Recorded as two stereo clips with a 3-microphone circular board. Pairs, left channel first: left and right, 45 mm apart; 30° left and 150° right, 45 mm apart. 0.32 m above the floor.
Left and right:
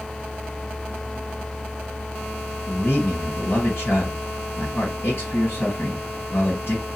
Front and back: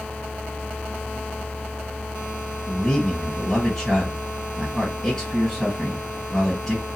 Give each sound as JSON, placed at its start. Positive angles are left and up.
{"t": 2.7, "sound": "a man speaking", "azimuth_deg": 115, "distance_m": 2.5}